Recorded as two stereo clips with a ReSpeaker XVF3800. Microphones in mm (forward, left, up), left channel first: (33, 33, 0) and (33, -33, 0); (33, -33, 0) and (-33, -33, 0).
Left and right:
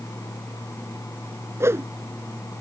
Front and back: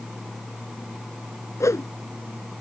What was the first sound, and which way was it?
A whoosh, 40° right.